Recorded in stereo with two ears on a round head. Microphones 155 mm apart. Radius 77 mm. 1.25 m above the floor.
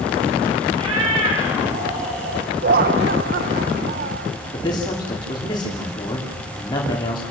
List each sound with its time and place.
0.8 s a cat meowing: 35° right (ahead or behind), 6 m; by 2.5 s 45° right (ahead or behind), 8.5 m
2.6 s laughter: 55° right (ahead or behind), 0.6 m
4.5 s a man speaking: 25° left (ahead or behind), 3 m